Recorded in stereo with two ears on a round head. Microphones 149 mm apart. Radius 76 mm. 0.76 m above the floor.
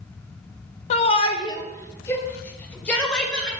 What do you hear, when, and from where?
0.9 s a shout: 45° left (ahead or behind), 1.4 m; by 3.5 s 5° left (ahead or behind), 3.5 m